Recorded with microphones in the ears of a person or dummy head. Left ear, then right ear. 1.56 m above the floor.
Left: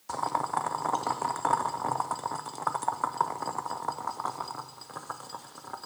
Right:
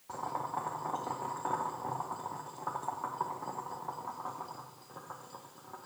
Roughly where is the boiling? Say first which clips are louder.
Left 7 dB; left.